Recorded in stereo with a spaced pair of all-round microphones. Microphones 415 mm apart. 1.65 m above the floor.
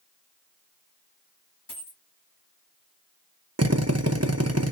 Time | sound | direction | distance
1.7 | a dropped coin | 50° left (ahead or behind) | 3 m
3.6 | a drill | 40° right (ahead or behind) | 0.8 m